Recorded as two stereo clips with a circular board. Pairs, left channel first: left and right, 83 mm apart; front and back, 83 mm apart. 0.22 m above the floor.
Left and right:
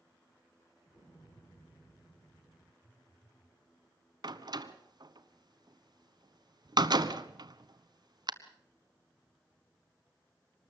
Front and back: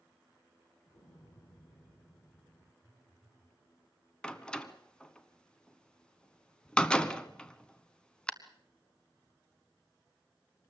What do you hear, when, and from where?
0.9 s an explosion: 40° left, 9 m
2.8 s a phone buzzing: 125° left, 5 m
4.2 s a door slam: 80° right, 1.1 m